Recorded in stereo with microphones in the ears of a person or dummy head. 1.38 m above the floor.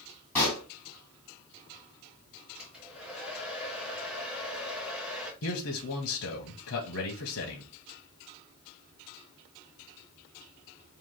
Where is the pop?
10° left (ahead or behind), 2.5 m.